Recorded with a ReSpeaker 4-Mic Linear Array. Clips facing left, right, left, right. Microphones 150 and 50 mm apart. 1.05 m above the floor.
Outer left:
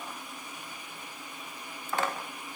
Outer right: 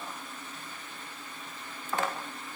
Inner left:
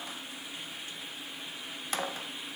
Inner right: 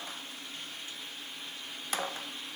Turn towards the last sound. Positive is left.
No sound to turn to.